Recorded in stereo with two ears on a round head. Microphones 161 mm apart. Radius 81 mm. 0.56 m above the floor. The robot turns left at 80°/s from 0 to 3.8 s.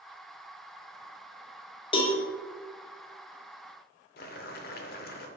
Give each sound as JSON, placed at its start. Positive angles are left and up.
{"t": 1.9, "sound": "a cowbell", "side_deg": 30, "distance_m": 1.1}
{"t": 4.2, "sound": "boiling", "side_deg": 50, "distance_m": 0.8}